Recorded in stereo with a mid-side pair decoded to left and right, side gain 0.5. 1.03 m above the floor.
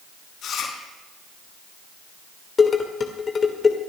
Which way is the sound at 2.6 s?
35° left.